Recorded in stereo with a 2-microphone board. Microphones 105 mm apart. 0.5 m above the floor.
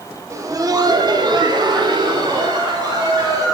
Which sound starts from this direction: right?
Laughter, at 0.3 s.